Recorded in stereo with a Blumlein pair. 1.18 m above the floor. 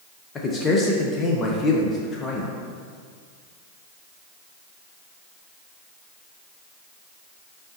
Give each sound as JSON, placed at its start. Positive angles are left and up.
{"t": 0.3, "sound": "a man speaking", "azimuth_deg": 20, "distance_m": 0.6}